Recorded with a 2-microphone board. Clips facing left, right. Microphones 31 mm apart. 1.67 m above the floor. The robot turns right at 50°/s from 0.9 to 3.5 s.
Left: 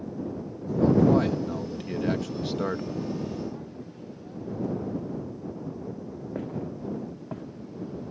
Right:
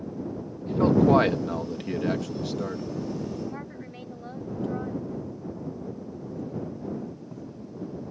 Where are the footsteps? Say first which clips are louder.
Left 1 dB; 60° left (ahead or behind); by 7.5 s 55° left (ahead or behind).